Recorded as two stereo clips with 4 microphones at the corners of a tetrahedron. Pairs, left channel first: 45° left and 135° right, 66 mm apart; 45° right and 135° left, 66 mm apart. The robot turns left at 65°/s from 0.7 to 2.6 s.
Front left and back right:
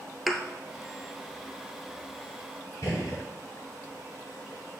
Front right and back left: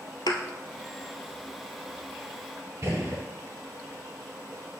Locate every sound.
0.3 s a thud: 45° right, 0.9 m
2.8 s a gunshot: 90° left, 4.5 m